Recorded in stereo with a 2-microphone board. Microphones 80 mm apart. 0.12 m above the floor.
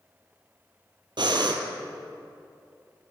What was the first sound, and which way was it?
Breathing, 75° right (ahead or behind).